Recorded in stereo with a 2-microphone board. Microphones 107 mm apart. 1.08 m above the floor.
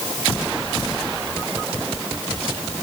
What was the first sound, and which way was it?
Only background noise.